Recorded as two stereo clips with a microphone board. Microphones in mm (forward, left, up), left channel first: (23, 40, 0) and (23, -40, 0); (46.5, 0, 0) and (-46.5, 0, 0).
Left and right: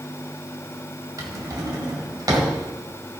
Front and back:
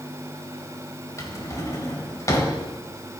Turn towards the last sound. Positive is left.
turn(degrees=-50)